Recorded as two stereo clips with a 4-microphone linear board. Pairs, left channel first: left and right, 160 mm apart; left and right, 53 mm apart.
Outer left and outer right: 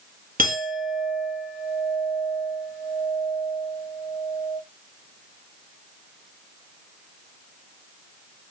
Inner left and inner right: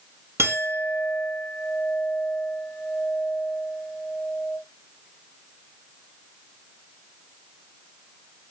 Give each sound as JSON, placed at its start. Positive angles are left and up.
{"t": 0.4, "sound": "a clink", "side_deg": -65, "distance_m": 1.6}